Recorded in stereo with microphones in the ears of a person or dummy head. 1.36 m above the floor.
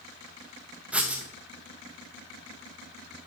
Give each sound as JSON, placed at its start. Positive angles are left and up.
{"t": 0.9, "sound": "writing", "side_deg": -10, "distance_m": 0.8}